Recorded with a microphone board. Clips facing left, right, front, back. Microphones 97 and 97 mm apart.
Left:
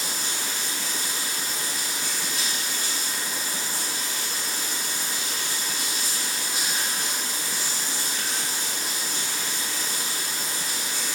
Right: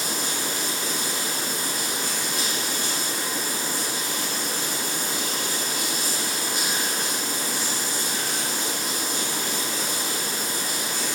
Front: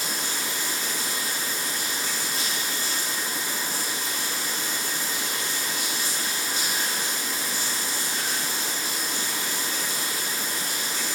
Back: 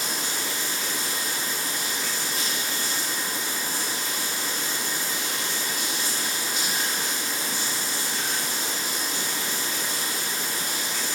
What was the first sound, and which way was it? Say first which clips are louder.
Running water: right 4 dB, even; 50° right.